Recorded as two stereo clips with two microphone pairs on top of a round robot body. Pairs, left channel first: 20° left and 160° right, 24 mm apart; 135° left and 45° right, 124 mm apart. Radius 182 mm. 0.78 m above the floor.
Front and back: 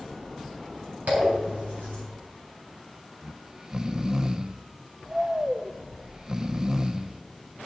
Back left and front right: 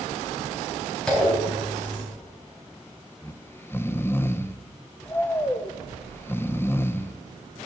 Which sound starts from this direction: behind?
Snoring, at 3.2 s.